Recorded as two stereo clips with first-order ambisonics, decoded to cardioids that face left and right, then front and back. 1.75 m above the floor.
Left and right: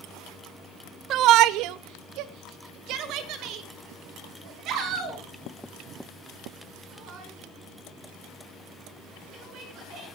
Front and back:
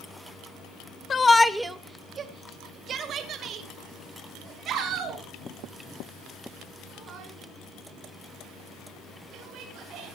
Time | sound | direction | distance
1.1 | a shout | 60° right | 0.5 m